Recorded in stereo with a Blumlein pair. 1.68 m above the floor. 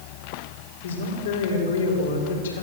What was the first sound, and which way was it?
A woman speaking, 65° left.